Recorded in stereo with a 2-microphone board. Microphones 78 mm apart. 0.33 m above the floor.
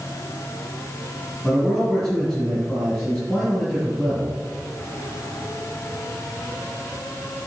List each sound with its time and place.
1.4 s a man speaking: 5° right (ahead or behind), 4.5 m